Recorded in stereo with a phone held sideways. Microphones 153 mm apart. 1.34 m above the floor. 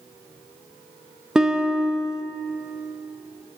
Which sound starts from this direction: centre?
A guitar, at 1.4 s.